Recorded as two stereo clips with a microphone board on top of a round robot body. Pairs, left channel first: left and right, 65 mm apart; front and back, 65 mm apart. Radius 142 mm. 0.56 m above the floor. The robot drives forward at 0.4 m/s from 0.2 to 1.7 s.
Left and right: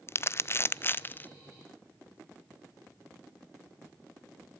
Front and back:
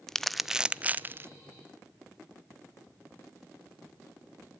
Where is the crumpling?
80° left, 0.6 m; by 1.3 s 140° left, 0.7 m.